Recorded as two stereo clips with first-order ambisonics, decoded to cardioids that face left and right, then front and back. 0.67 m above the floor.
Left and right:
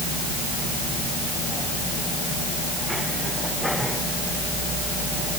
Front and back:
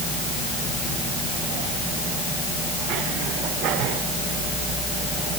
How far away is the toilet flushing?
No toilet flushing in this recording.